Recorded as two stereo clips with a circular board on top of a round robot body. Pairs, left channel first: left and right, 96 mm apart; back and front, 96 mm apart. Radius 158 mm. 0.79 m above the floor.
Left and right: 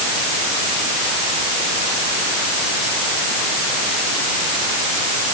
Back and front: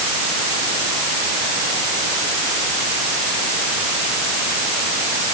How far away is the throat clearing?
No throat clearing in this recording.